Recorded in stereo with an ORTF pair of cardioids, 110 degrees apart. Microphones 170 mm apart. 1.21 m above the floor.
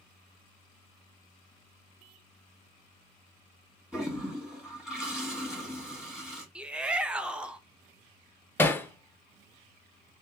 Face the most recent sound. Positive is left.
turn(degrees=10)